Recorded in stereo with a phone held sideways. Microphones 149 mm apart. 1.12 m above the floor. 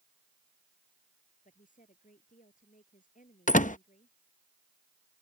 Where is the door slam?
60° left (ahead or behind).